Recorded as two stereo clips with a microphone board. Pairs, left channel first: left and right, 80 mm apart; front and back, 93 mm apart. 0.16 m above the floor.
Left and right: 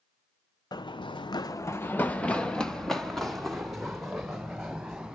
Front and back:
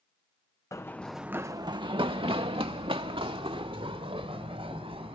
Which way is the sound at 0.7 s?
55° left.